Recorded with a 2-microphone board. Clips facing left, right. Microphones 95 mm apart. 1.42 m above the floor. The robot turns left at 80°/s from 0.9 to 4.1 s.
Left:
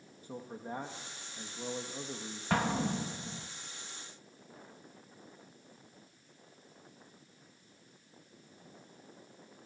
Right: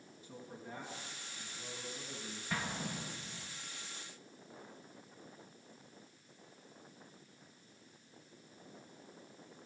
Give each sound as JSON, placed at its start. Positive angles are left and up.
{"t": 0.2, "sound": "a man speaking", "azimuth_deg": 135, "distance_m": 2.0}
{"t": 2.5, "sound": "an explosion", "azimuth_deg": 115, "distance_m": 1.4}